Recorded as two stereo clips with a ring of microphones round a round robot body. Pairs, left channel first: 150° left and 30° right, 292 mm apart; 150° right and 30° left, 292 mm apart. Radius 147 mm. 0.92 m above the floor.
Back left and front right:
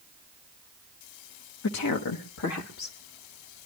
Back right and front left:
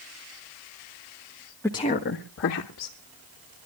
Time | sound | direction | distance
1.6 | a woman speaking | 130° left | 1.1 m